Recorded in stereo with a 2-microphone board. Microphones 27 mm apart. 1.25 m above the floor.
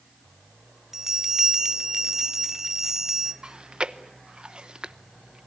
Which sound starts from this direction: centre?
A bell, at 0.9 s.